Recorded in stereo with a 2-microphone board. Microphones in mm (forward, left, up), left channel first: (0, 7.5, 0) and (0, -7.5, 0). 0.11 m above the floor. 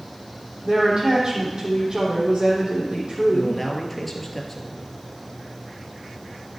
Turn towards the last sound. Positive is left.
turn(degrees=10)  # may be behind; listen again after turning